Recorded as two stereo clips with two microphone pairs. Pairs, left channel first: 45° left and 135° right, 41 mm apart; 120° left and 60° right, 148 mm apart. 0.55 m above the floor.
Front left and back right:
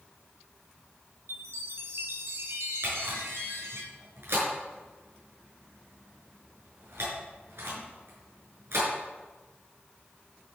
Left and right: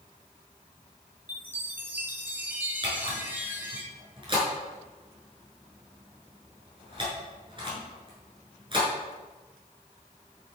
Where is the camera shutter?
115° right, 6 m.